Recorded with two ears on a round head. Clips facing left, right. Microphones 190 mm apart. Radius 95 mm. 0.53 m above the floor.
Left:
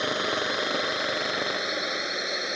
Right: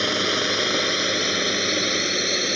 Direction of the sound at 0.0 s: 35° right (ahead or behind).